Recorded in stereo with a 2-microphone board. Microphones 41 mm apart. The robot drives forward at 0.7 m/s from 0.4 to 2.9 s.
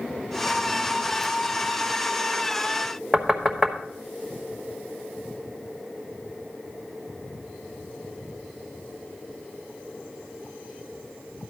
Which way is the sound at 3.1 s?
Centre (ahead or behind).